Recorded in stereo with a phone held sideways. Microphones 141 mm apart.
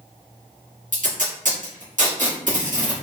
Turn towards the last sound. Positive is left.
turn(degrees=-65)  # may be behind; listen again after turning